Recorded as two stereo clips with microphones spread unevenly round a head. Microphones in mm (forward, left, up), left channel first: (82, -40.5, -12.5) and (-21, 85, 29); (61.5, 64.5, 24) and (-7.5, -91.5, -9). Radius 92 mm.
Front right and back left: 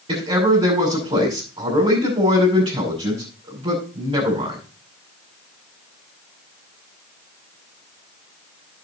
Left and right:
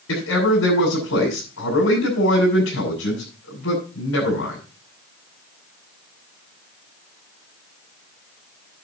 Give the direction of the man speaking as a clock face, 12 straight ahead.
10 o'clock.